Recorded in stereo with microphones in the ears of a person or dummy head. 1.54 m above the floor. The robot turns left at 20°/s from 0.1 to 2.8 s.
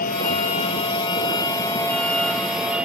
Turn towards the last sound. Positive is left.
turn(degrees=-10)